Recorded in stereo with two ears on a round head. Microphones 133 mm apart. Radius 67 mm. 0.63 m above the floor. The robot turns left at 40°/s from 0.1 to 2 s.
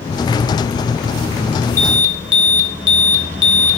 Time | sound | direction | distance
1.8 | an alarm | 20° left (ahead or behind) | 1.2 m